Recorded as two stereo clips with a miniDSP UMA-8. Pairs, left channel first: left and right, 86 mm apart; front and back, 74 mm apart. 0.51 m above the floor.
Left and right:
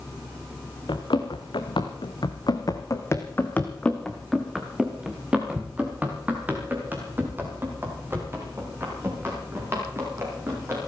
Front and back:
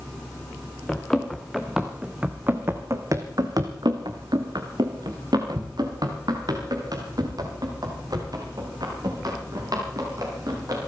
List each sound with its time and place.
0.9 s running footsteps: 80° left, 2.5 m; by 10.8 s 150° right, 9 m